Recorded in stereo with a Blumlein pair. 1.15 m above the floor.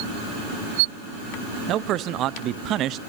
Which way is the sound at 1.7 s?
35° right.